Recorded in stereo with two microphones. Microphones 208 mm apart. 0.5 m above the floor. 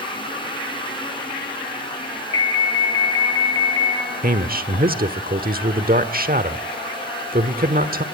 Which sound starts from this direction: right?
A man speaking, at 4.2 s.